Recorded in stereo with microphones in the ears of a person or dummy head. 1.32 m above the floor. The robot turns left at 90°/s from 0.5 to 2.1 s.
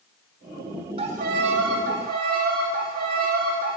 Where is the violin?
35° right, 1.6 m; by 3.8 s 135° right, 1.6 m.